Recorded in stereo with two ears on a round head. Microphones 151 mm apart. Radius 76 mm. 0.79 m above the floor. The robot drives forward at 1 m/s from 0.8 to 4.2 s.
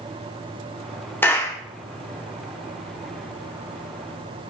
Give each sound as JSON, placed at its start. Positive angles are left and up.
{"t": 1.2, "sound": "a clap", "side_deg": 15, "distance_m": 1.8}